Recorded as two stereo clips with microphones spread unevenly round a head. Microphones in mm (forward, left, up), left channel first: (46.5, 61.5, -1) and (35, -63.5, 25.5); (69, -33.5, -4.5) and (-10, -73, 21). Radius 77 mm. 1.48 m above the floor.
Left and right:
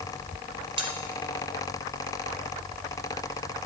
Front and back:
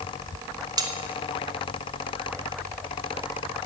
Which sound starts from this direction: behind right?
Cutlery clinking, at 0.8 s.